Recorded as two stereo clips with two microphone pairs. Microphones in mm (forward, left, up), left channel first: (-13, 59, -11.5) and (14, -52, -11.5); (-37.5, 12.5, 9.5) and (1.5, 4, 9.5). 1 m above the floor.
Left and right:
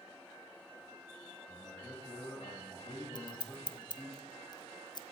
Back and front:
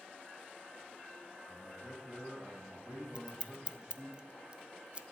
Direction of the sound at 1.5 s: 65° left.